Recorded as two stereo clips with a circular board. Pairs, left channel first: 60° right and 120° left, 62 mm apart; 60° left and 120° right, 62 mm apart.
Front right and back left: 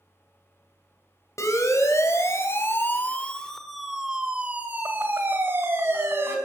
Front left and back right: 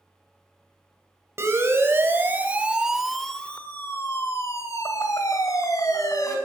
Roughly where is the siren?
Right.